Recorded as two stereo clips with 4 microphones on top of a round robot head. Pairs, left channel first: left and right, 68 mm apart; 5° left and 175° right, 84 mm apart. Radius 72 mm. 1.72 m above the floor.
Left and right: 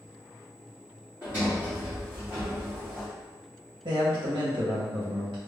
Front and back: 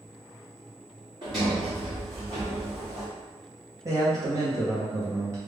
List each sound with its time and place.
1.2 s a sliding door: 150° right, 1.4 m
3.9 s a man speaking: 115° right, 0.8 m